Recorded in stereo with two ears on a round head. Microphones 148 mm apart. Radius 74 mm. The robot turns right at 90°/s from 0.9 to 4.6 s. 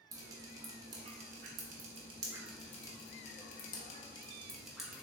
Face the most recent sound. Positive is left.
turn(degrees=0)  # may be behind; listen again after turning